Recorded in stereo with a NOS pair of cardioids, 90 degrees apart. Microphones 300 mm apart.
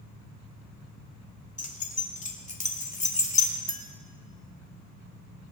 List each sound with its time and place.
1.6 s keys jangling: 25° left, 3 m
3.7 s a clink: 30° right, 1.3 m